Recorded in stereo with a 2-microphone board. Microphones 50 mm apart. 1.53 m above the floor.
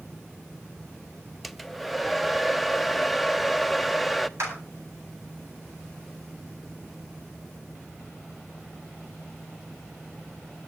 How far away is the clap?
About 8.5 m.